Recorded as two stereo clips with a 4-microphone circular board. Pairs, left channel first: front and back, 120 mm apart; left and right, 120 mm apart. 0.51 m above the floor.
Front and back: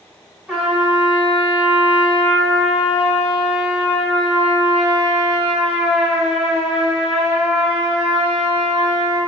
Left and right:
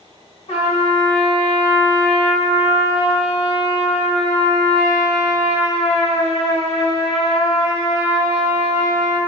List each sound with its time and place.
0.5 s a trumpet: 95° left, 1.0 m